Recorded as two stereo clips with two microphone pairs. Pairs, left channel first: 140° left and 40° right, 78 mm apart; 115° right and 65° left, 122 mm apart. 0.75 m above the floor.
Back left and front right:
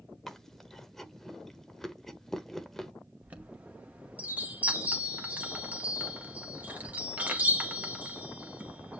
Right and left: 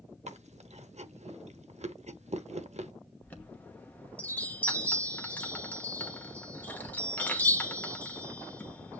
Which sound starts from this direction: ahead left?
Chewing, at 0.3 s.